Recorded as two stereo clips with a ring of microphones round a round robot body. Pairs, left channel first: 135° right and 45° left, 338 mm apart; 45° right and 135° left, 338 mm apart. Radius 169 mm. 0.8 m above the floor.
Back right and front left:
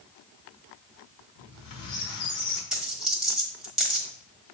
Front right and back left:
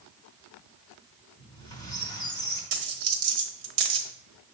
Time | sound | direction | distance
1.4 | a squeak | 125° right | 1.4 m
2.7 | a dropped coin | 135° left | 1.2 m